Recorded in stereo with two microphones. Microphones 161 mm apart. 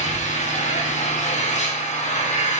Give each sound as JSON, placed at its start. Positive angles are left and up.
{"t": 0.0, "sound": "an engine running", "side_deg": 45, "distance_m": 3.5}